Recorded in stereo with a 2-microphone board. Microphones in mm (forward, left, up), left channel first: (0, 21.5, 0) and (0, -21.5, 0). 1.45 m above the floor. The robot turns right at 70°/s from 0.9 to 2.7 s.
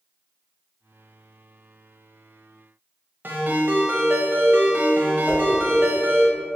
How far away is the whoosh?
About 1.0 m.